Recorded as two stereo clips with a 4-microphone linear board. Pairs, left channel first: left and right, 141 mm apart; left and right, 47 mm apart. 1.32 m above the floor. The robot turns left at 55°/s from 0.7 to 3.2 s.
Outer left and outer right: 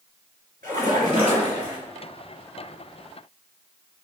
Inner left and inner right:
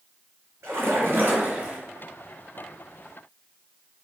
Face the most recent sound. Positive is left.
turn(degrees=120)